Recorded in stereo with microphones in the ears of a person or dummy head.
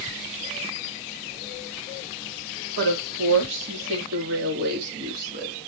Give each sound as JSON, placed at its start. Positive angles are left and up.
{"t": 2.8, "sound": "a woman speaking", "side_deg": -75, "distance_m": 2.5}